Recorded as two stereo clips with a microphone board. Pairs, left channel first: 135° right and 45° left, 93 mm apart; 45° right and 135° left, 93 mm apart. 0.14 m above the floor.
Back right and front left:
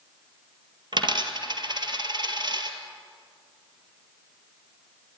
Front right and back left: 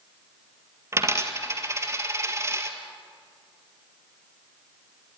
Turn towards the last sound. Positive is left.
turn(degrees=75)